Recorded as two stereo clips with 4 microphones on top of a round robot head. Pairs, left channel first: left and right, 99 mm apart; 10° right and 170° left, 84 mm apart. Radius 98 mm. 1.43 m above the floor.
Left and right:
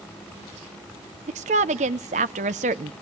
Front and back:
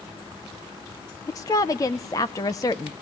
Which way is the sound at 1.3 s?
70° right.